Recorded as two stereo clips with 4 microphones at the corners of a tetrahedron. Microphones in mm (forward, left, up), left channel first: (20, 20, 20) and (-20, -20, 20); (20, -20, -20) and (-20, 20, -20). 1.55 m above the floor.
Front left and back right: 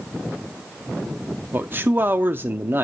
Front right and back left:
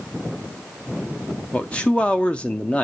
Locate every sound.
1.5 s a man speaking: 105° right, 0.5 m